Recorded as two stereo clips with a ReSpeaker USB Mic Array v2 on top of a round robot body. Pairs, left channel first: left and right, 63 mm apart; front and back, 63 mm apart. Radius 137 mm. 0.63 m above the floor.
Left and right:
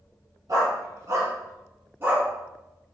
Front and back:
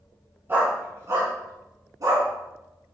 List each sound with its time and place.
0.5 s a dog barking: 120° right, 4 m; by 2.3 s 150° right, 3.5 m